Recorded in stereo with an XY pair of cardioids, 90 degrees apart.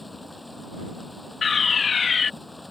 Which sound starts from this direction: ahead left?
A fire alarm, at 1.4 s.